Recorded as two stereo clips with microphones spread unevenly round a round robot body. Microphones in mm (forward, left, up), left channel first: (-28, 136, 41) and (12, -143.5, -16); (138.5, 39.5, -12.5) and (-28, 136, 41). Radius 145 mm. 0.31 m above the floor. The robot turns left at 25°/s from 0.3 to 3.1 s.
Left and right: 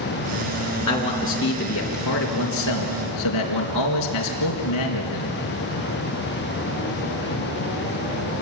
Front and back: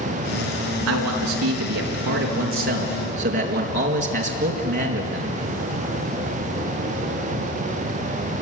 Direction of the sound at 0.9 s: 175° left.